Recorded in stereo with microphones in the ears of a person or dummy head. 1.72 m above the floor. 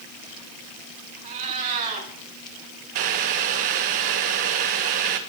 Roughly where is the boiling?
Right.